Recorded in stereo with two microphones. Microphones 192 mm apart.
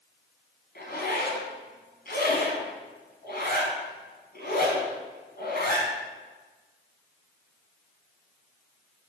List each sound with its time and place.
0.8 s a zipper: 60° left (ahead or behind), 1.3 m